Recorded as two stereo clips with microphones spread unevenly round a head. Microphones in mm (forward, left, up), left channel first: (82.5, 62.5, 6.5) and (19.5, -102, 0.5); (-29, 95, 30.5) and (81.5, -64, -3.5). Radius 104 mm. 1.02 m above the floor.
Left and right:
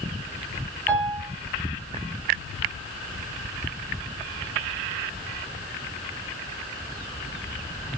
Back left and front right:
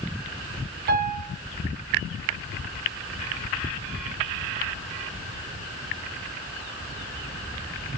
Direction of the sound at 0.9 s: 10° right.